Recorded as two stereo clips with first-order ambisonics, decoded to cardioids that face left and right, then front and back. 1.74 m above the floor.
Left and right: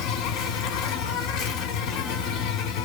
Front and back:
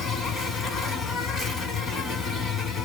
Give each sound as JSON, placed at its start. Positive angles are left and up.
{"t": 0.0, "sound": "an insect", "azimuth_deg": 60, "distance_m": 1.1}